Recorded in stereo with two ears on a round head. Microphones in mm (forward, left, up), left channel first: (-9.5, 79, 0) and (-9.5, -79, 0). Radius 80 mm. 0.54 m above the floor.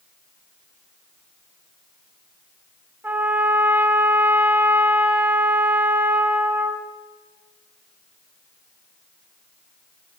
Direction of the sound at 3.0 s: 10° right (ahead or behind).